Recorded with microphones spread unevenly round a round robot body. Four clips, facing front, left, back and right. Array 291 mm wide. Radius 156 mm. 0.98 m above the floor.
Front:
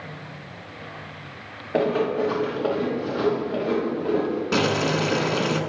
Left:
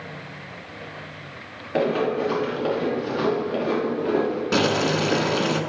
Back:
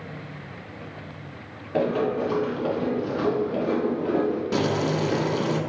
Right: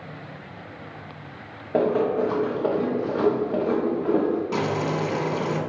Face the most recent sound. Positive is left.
turn(degrees=35)